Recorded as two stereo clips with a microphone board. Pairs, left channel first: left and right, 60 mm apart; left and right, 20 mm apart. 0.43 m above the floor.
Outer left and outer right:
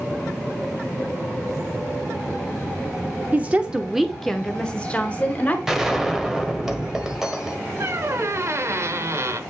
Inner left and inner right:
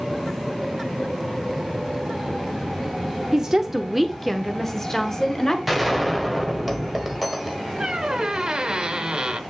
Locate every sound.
3.3 s a woman speaking: 25° right (ahead or behind), 0.8 m; by 5.6 s 30° left (ahead or behind), 1.4 m
5.7 s a gunshot: 5° right (ahead or behind), 1.3 m
7.8 s a squeak: 50° right (ahead or behind), 0.7 m